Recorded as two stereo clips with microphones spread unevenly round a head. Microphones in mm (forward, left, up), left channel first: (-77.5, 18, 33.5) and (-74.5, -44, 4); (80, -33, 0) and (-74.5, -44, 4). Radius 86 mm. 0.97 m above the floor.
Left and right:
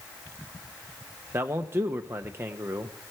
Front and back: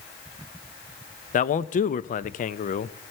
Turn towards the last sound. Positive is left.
turn(degrees=-35)